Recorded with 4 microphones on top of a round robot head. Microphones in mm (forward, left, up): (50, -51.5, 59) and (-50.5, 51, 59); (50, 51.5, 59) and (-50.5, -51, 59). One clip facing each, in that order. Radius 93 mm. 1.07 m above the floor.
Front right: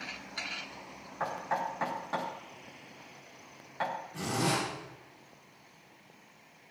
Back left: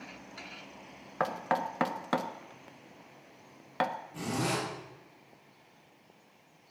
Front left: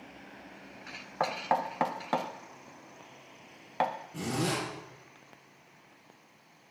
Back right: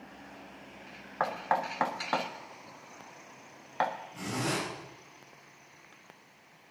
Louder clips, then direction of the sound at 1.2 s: Back left 3 dB, front left 1 dB; 120° left.